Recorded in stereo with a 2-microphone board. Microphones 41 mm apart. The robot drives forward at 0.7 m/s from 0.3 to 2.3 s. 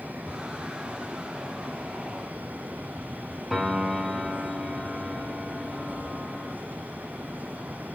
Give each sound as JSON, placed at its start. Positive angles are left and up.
{"t": 3.5, "sound": "a piano", "side_deg": 0, "distance_m": 1.3}